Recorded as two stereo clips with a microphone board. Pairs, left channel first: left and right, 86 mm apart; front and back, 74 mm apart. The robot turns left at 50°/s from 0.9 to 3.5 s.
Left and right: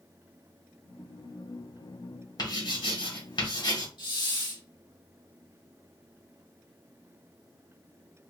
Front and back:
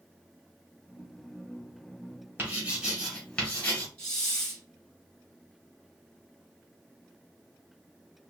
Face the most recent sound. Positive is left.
turn(degrees=75)